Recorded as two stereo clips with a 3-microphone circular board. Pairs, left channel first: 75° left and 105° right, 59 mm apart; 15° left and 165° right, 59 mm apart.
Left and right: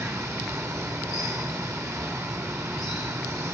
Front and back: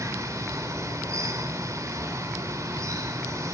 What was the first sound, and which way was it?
Running water, 135° right.